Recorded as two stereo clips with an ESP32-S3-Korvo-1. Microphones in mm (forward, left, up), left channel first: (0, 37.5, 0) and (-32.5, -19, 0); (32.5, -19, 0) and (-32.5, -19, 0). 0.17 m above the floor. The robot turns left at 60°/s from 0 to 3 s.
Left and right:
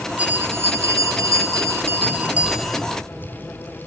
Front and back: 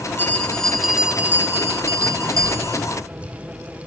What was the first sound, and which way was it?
A bell, 55° right.